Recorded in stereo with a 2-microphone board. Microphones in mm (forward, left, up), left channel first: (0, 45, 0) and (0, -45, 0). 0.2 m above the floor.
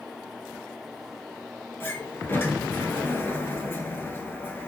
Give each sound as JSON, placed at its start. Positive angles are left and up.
{"t": 1.8, "sound": "a sliding door", "side_deg": 25, "distance_m": 0.7}